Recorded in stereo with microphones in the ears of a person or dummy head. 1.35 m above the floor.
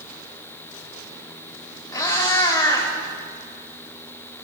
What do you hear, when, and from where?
1.9 s a cat meowing: 20° left (ahead or behind), 2.5 m